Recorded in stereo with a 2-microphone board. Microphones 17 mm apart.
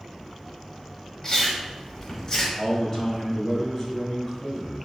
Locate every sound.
1.2 s chewing: 30° left (ahead or behind), 1.2 m
2.6 s a man speaking: 20° left (ahead or behind), 1.3 m